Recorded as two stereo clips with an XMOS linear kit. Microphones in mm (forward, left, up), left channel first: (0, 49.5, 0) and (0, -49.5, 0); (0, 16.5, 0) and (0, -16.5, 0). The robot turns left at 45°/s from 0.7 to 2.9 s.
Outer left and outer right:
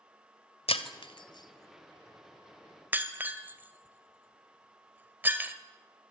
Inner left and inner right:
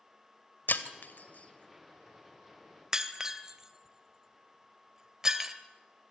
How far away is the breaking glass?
About 1.7 m.